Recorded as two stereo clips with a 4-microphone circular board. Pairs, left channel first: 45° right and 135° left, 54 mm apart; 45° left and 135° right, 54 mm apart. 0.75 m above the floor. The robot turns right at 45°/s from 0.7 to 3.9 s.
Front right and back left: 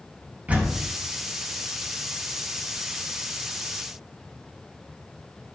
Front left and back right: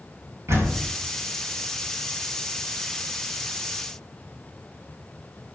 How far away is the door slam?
About 4.5 m.